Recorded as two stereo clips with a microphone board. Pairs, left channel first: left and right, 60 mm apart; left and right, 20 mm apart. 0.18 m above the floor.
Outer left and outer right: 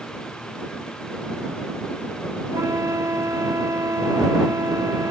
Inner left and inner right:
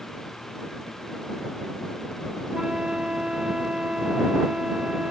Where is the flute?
55° right (ahead or behind).